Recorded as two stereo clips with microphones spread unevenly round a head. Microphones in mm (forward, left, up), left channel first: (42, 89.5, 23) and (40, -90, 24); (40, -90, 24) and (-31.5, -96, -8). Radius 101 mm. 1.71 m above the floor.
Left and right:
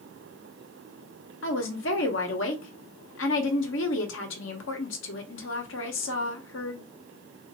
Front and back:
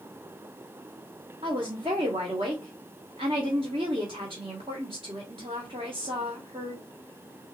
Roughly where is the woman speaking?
Behind left.